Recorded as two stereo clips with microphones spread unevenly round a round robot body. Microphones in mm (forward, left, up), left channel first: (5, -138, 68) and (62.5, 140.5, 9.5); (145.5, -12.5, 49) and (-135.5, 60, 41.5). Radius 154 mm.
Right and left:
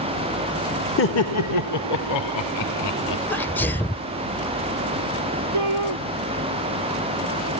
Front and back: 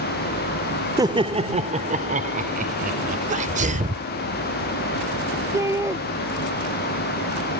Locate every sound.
1.0 s laughter: 125° right; by 3.2 s 130° right
3.3 s a sneeze: 160° left
5.5 s a shout: 85° left